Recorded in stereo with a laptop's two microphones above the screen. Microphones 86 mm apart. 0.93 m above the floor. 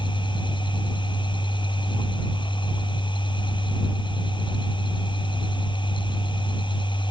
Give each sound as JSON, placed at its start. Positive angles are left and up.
{"t": 0.0, "sound": "a machine running", "side_deg": 70}